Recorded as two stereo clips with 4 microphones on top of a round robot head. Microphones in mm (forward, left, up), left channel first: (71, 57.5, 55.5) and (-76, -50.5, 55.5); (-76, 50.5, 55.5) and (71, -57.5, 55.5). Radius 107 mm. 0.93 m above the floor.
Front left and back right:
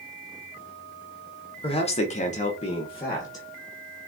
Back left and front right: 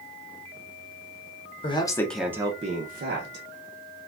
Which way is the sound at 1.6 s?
90° left.